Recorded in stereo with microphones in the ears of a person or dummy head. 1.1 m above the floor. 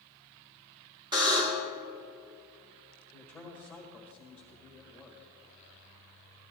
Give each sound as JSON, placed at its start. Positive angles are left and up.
{"t": 1.1, "sound": "a buzzer", "side_deg": -20, "distance_m": 1.7}
{"t": 3.1, "sound": "a man speaking", "side_deg": 0, "distance_m": 1.6}